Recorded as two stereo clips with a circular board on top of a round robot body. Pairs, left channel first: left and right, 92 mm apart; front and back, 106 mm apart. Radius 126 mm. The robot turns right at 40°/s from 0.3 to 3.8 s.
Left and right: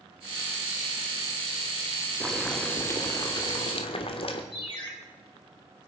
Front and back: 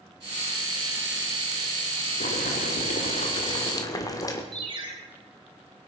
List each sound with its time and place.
2.2 s boiling: 5° right, 1.4 m; by 4.4 s 60° left, 1.4 m
4.5 s a ringtone: 130° left, 3 m